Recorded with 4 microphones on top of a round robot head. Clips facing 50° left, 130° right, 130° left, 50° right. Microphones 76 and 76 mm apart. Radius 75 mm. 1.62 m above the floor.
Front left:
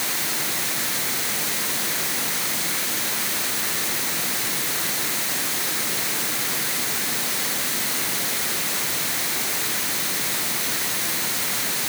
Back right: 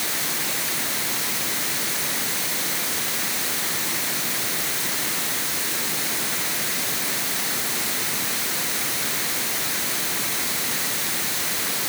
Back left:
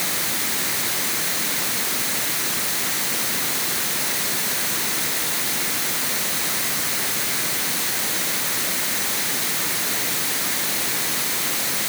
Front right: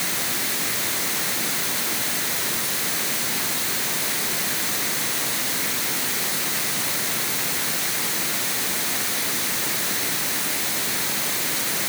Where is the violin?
No violin in this recording.